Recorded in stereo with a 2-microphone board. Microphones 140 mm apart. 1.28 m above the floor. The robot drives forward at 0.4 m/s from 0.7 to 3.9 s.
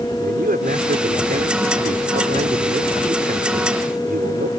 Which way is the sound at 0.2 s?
85° right.